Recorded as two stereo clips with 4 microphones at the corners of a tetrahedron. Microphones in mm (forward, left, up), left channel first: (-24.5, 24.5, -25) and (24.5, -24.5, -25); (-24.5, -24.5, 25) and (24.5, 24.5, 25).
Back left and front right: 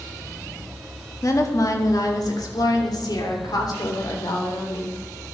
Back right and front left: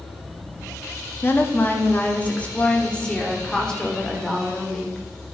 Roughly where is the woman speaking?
Behind.